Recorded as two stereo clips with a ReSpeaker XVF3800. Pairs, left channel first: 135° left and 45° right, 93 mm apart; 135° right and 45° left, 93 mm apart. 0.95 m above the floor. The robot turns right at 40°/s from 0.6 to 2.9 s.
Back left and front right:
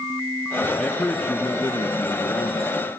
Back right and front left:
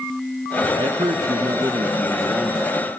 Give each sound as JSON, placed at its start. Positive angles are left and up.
{"t": 0.8, "sound": "a man speaking", "azimuth_deg": 60, "distance_m": 1.3}